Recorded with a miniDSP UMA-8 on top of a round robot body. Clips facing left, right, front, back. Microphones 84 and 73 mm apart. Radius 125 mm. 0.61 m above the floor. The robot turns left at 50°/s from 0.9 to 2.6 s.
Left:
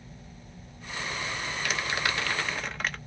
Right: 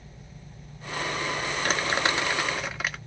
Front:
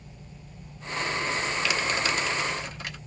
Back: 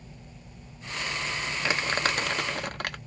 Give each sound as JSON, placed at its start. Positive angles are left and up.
{"t": 1.6, "sound": "crumpling", "azimuth_deg": -125, "distance_m": 1.1}